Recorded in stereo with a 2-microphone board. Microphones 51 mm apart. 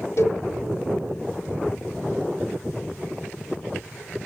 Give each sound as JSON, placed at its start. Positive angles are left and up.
{"t": 0.2, "sound": "a cowbell", "side_deg": 60, "distance_m": 1.1}